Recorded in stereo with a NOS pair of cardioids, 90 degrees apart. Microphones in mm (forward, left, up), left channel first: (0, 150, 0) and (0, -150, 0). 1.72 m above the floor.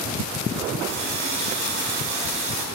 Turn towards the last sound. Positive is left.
turn(degrees=-70)